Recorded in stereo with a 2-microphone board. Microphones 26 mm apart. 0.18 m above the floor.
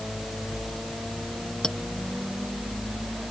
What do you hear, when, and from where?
1.6 s a clink: 35° left (ahead or behind)